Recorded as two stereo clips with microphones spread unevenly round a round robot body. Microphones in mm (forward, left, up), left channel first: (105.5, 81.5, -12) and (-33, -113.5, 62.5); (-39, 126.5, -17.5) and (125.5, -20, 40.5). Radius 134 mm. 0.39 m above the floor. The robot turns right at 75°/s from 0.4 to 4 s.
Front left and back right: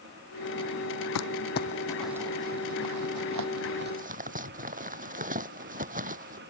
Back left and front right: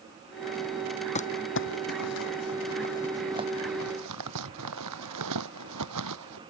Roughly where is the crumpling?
Left.